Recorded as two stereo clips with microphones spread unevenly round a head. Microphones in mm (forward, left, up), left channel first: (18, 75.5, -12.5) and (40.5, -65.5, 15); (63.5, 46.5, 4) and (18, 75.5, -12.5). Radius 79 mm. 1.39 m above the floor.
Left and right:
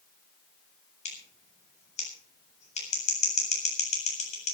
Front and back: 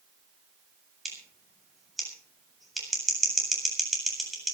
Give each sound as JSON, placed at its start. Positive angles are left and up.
{"t": 1.1, "sound": "scissors", "azimuth_deg": 55, "distance_m": 8.0}